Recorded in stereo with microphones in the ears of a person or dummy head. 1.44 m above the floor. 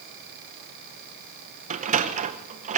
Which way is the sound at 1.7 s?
40° right (ahead or behind).